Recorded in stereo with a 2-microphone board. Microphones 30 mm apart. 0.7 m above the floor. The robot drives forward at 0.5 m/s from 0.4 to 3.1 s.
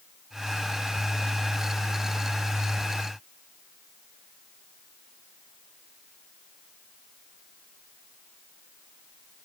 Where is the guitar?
I don't hear a guitar.